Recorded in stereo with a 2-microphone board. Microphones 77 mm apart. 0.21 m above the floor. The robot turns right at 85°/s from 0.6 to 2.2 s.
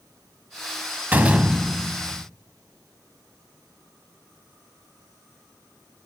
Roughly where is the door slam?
Right.